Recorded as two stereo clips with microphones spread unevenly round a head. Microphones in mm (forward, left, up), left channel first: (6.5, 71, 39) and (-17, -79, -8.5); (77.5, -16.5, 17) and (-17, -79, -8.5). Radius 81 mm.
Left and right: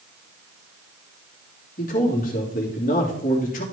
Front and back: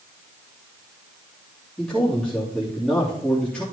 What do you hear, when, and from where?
1.8 s a man speaking: 120° left, 3 m